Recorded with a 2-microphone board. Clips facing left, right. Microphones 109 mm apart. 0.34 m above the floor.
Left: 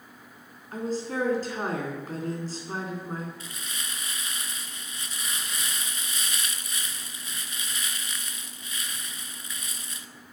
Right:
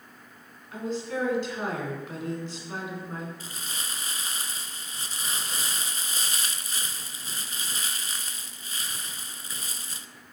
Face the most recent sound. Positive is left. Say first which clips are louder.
# right 1 dB
turn(degrees=-35)  # may be behind; listen again after turning